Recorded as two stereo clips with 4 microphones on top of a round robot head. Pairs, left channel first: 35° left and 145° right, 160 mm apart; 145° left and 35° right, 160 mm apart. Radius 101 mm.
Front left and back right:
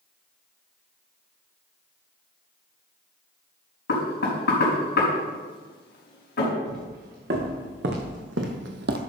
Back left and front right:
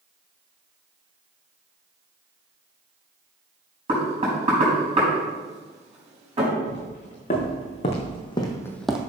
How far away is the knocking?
About 4 m.